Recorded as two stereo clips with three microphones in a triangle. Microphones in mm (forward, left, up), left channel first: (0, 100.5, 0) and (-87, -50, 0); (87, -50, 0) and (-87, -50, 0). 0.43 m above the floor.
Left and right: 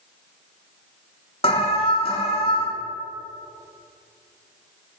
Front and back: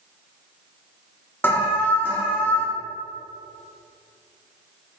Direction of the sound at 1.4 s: 70° left.